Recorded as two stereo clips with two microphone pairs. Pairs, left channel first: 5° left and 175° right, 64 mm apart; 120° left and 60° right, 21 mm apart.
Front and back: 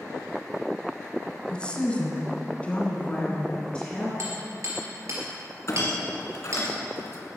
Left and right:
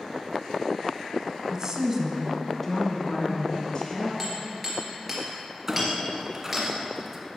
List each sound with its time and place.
1.5 s a woman speaking: 60° right, 1.4 m; by 4.1 s 75° left, 2.5 m
4.2 s hammering: 145° right, 3 m
5.7 s a clunk: 5° left, 1.5 m